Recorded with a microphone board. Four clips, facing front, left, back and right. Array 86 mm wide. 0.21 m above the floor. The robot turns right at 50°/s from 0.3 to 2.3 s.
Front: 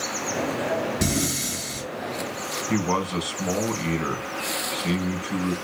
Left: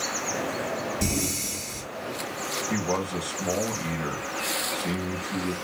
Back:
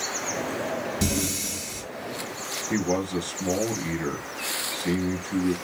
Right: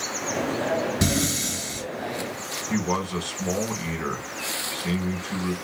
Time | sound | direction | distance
1.0 | breathing | 75° right | 2.5 m
2.7 | a man speaking | 10° right | 1.6 m